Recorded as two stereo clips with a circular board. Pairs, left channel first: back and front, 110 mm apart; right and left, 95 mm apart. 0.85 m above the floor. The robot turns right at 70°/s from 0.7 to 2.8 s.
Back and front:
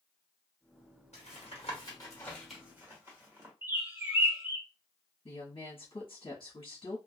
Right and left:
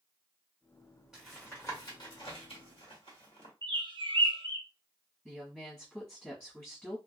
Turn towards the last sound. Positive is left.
turn(degrees=-165)